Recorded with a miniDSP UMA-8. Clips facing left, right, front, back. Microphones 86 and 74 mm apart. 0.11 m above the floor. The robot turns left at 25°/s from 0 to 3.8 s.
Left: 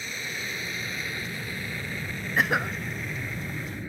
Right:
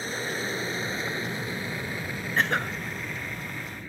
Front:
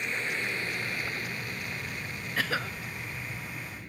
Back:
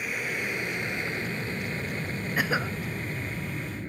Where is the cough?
160° left; by 2.8 s 150° left.